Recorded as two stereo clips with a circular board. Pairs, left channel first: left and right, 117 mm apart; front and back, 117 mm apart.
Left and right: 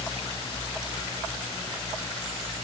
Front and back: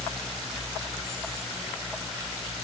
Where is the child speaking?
No child speaking in this recording.